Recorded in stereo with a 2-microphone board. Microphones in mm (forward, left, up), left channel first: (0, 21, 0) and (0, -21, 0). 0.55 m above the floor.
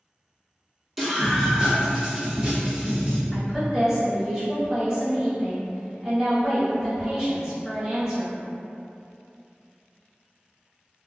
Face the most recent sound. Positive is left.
turn(degrees=-20)  # may be behind; listen again after turning